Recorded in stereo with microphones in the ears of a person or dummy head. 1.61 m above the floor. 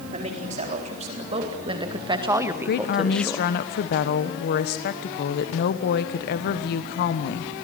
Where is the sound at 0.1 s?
40° right (ahead or behind), 4.5 m; by 3.5 s 15° left (ahead or behind), 1.2 m.